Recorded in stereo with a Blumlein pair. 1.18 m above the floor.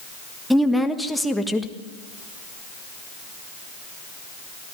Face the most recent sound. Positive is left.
turn(degrees=0)